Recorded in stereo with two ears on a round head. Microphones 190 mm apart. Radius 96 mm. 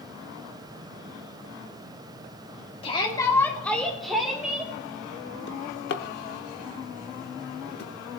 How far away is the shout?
About 2.5 m.